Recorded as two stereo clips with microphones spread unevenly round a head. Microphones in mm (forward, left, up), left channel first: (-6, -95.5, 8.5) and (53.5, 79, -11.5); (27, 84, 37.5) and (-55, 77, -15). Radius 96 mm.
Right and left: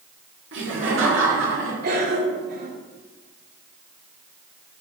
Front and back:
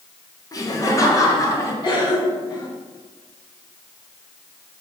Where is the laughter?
50° left, 2.5 m; by 1.7 s 55° left, 3 m.